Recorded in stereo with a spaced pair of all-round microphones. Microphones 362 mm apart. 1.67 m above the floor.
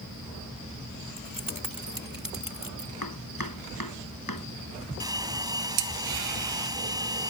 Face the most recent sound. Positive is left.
turn(degrees=-10)  # may be behind; listen again after turning